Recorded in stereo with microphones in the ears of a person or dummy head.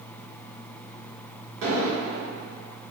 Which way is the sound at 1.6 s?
65° right (ahead or behind).